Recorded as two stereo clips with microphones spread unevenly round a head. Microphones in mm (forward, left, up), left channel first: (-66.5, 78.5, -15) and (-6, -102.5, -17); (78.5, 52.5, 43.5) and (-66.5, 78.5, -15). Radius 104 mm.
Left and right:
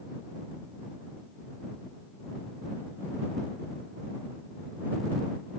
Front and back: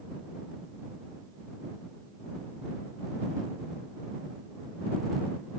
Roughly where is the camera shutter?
I don't hear a camera shutter.